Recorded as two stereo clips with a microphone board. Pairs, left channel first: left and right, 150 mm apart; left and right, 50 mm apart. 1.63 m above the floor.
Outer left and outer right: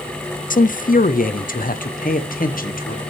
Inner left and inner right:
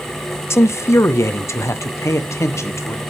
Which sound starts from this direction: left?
A man speaking, at 0.5 s.